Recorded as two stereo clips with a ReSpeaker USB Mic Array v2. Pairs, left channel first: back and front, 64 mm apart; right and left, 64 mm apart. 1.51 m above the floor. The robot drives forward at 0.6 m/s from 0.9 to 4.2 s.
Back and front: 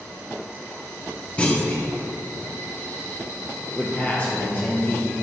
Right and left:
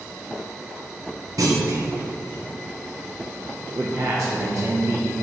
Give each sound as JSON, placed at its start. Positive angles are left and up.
{"t": 1.4, "sound": "a clunk", "azimuth_deg": 110, "distance_m": 1.1}
{"t": 3.7, "sound": "a man speaking", "azimuth_deg": 105, "distance_m": 0.9}